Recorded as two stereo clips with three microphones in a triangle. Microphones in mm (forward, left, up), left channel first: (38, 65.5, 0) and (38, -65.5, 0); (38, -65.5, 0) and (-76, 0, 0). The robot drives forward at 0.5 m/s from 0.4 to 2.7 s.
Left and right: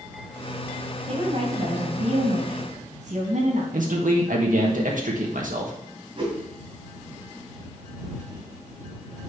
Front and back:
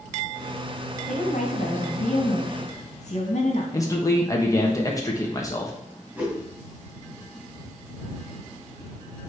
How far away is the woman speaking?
About 2.5 m.